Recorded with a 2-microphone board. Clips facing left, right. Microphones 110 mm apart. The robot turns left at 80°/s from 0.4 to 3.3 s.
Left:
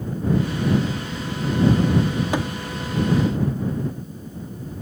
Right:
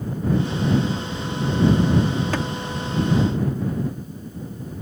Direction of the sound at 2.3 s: 15° left (ahead or behind).